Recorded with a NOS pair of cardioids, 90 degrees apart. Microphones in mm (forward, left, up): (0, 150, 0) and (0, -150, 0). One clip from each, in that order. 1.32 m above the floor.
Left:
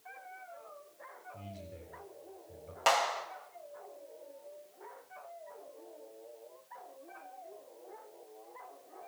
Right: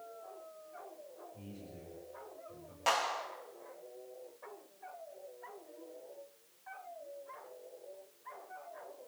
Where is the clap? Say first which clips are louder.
Left 4 dB; 50° left, 6.5 m.